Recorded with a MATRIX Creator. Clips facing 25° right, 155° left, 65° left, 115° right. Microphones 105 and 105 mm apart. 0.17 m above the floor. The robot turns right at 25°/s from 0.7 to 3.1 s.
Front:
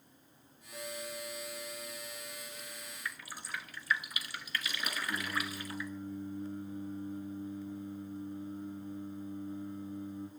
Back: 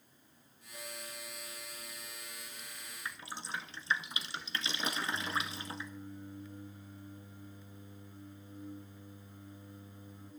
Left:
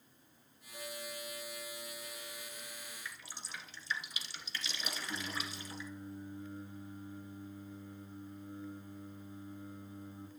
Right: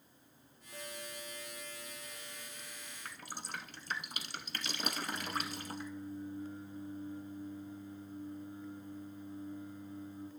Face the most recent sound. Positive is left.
turn(degrees=-5)